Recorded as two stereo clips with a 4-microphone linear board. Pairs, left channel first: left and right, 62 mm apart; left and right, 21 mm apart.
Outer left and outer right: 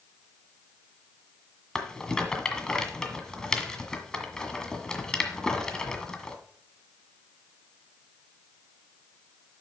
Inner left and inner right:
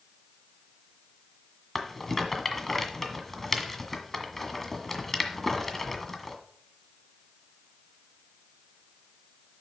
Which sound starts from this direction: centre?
A rattle, at 1.8 s.